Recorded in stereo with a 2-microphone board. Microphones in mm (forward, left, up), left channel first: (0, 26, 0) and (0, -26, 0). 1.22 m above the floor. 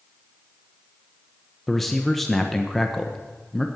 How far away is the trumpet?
I don't hear a trumpet.